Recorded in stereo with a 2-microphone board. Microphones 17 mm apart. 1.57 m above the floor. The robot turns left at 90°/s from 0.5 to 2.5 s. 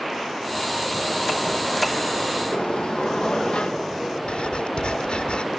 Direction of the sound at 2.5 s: 85° left.